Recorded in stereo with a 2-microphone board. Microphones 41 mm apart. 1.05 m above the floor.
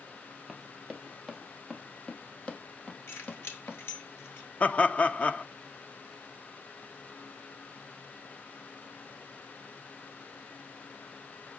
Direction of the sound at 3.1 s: 85° left.